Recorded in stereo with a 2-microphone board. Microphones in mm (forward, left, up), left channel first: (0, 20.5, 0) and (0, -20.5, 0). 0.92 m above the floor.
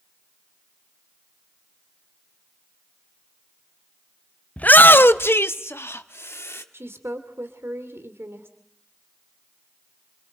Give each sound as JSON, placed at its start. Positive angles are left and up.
{"t": 4.6, "sound": "a shout", "side_deg": 35, "distance_m": 0.5}
{"t": 6.7, "sound": "a woman speaking", "side_deg": -70, "distance_m": 2.5}